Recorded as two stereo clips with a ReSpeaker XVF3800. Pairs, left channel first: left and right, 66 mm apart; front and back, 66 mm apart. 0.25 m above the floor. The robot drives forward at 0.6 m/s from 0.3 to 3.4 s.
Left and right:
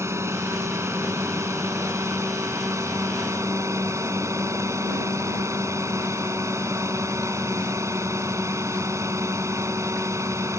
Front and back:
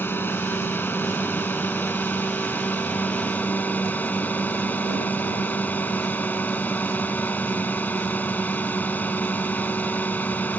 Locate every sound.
0.0 s a drone: 50° right; by 10.6 s 60° right